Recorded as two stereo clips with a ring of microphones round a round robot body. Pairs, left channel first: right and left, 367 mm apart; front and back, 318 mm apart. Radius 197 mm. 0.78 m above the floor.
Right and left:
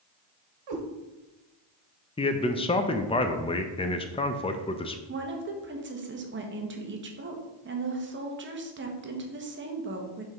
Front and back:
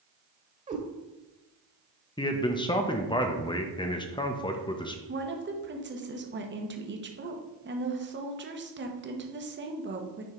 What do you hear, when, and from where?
0.7 s a cat meowing: 110° left, 1.5 m
2.2 s a man speaking: 45° right, 0.6 m
5.1 s a woman speaking: 140° left, 1.1 m